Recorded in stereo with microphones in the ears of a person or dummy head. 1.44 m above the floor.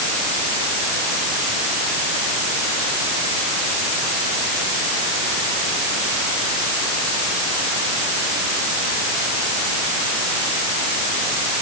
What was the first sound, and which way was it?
Only background noise.